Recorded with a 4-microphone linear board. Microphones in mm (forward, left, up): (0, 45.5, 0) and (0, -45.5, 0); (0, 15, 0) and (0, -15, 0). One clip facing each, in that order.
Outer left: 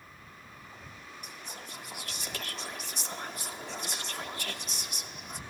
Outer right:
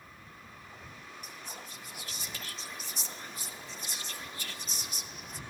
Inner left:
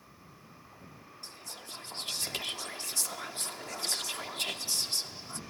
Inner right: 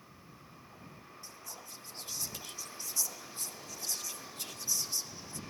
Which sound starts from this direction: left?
Whispering, at 1.2 s.